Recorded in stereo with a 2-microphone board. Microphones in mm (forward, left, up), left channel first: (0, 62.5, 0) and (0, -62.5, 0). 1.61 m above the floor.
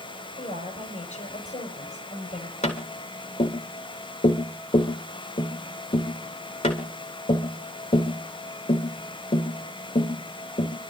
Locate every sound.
0.4 s a woman speaking: 70° left (ahead or behind), 7 m
2.6 s tapping: 70° left (ahead or behind), 3 m